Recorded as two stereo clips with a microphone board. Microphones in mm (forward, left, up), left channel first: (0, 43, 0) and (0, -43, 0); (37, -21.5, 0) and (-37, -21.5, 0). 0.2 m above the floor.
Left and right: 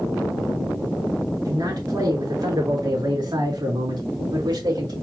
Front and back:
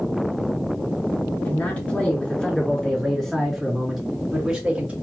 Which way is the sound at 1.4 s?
65° right.